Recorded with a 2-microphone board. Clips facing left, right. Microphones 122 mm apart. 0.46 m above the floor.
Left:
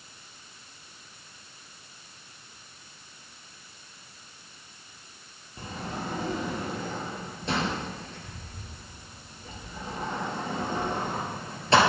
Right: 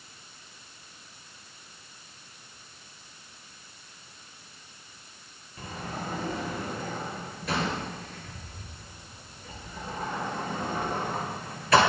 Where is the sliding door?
25° left (ahead or behind), 2.5 m.